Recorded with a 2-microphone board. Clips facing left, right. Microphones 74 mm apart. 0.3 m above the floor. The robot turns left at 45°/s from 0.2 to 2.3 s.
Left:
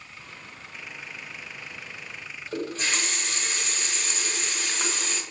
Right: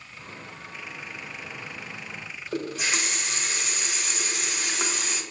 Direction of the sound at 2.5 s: 10° right (ahead or behind).